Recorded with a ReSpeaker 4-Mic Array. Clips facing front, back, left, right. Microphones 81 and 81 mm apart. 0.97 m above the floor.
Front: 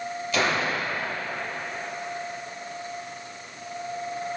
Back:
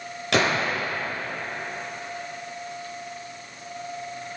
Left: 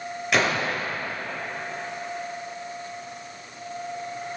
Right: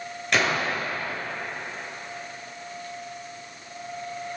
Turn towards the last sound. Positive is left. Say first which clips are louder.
# back 3 dB, left 1 dB
turn(degrees=175)